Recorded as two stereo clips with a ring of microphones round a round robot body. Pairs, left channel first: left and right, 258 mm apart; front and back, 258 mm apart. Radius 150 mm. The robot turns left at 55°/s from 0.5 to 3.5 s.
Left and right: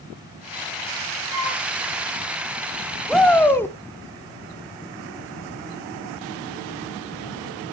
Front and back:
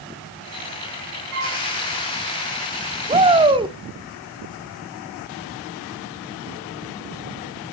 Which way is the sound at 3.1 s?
Straight behind.